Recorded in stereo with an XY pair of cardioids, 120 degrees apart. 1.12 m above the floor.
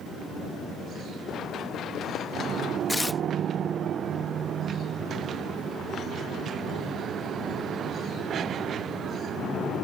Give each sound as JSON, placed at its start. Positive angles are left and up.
{"t": 1.3, "sound": "running footsteps", "azimuth_deg": 55}
{"t": 2.9, "sound": "tearing paper", "azimuth_deg": 15}